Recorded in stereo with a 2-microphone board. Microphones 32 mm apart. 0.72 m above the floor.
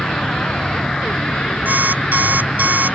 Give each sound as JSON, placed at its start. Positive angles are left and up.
{"t": 0.0, "sound": "an insect", "side_deg": 30}
{"t": 1.6, "sound": "an alarm clock", "side_deg": -85}